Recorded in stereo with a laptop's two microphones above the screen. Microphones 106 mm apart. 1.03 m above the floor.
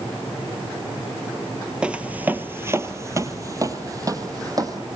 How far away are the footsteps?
About 1.0 m.